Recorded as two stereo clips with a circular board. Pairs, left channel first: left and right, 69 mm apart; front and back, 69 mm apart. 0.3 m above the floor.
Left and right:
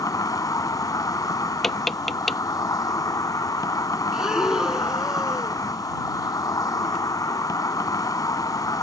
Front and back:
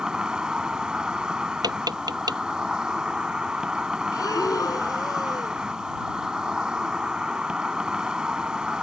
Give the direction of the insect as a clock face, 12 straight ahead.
9 o'clock.